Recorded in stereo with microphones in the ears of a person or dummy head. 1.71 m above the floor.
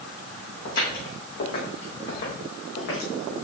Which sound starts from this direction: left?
Footsteps, at 0.7 s.